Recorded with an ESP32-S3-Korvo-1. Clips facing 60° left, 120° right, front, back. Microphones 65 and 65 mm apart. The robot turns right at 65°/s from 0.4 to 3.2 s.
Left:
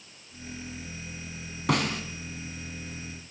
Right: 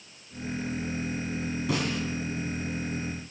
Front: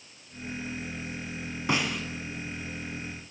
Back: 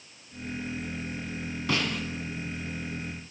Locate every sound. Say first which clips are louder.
1.7 s a snare drum: left 4 dB, front 1 dB; 65° left, 1.7 m; by 2.0 s 90° left, 1.7 m